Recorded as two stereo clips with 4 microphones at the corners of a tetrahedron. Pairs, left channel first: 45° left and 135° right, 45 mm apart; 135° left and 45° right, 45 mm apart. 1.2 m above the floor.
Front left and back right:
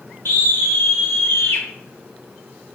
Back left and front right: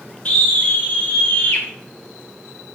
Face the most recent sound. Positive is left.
turn(degrees=75)